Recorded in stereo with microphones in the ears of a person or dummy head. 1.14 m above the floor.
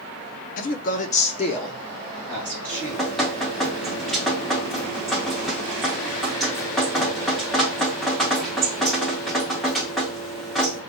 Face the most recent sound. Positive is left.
turn(degrees=0)  # may be behind; listen again after turning